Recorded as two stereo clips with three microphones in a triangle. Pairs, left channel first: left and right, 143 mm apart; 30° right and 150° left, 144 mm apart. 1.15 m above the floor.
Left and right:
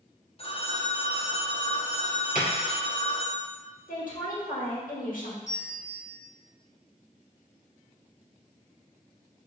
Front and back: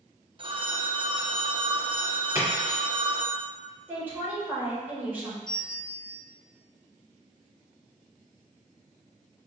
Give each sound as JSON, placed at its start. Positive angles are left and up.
{"t": 0.4, "sound": "a phone ringing", "azimuth_deg": 115, "distance_m": 0.5}
{"t": 2.4, "sound": "a splash", "azimuth_deg": 80, "distance_m": 1.8}
{"t": 3.9, "sound": "a woman speaking", "azimuth_deg": 75, "distance_m": 1.5}
{"t": 5.5, "sound": "a bell", "azimuth_deg": 55, "distance_m": 1.2}